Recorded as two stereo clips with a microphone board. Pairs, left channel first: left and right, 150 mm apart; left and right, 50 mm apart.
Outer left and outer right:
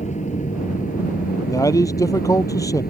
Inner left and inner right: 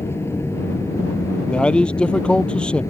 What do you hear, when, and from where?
0.0 s an aircraft: 55° left (ahead or behind); by 2.9 s 75° left (ahead or behind)
1.5 s a man speaking: 20° left (ahead or behind)